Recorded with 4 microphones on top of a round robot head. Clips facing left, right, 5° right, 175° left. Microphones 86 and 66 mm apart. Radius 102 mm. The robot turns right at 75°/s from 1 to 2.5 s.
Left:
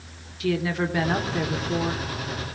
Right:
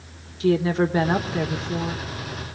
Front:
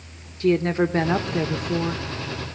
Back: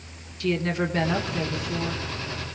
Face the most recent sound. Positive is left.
turn(degrees=70)